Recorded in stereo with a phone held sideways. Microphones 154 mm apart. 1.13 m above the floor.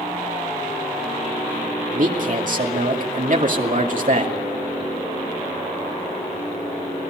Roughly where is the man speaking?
Right.